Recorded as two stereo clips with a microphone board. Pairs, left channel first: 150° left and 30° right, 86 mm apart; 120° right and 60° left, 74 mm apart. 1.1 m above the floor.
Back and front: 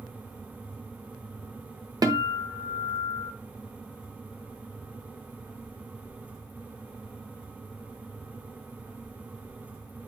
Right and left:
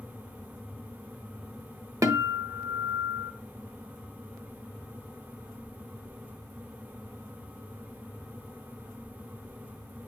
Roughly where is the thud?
I don't hear a thud.